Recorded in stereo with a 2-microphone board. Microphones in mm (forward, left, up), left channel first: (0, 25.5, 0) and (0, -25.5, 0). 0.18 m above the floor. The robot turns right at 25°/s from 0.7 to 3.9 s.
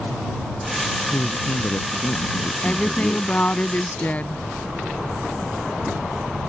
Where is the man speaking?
100° left; by 3.6 s 165° left.